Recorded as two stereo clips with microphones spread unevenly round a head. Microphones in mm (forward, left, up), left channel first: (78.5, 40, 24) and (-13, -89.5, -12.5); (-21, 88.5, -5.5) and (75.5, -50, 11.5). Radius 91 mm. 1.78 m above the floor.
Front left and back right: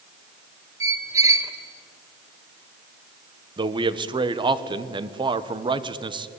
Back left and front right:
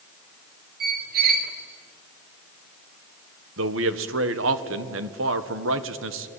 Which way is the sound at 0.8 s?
50° right.